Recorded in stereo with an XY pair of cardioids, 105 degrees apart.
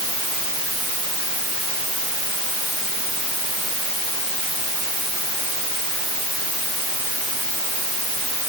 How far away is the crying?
No crying in this recording.